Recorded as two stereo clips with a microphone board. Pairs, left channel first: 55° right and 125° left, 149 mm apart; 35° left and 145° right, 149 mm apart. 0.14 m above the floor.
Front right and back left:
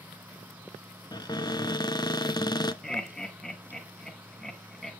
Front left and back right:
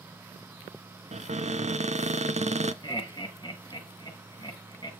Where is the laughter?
30° left, 1.6 m.